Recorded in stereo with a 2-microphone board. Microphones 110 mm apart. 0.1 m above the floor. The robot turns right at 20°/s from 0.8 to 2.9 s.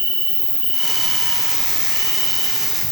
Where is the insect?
50° right, 1.0 m; by 2.9 s 10° right, 1.0 m.